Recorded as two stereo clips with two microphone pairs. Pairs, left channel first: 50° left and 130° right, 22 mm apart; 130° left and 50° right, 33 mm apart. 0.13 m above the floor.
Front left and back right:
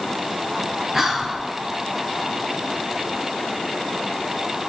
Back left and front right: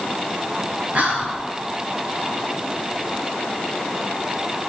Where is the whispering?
65° right, 2 m.